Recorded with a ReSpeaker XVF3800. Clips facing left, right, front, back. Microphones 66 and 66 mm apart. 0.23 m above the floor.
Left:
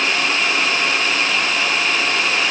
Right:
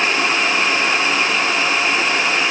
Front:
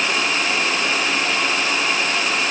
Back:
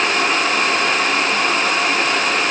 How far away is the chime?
I don't hear a chime.